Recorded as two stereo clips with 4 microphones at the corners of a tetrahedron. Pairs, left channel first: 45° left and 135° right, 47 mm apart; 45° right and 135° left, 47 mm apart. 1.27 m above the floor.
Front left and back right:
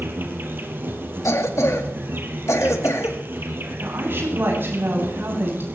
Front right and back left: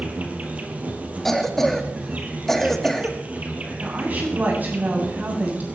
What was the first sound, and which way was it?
An insect, 170° right.